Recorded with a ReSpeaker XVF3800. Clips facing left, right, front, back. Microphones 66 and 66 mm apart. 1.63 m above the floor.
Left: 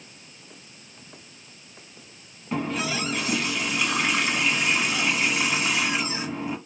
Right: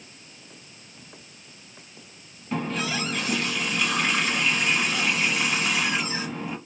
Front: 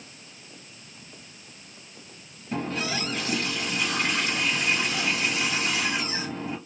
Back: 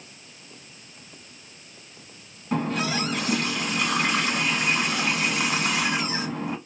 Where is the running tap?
170° left, 1.5 m.